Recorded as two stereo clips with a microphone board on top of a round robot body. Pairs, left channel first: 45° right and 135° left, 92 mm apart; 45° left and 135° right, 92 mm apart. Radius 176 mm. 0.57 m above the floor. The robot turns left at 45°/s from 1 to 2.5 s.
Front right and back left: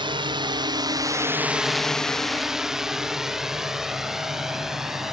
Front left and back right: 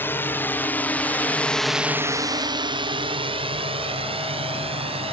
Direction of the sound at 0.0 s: 110° left.